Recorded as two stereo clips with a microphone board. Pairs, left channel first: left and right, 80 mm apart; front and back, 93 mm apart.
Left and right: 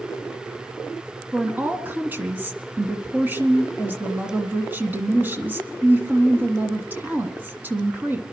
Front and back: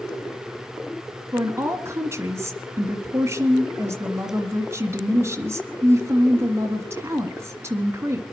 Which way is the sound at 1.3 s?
140° right.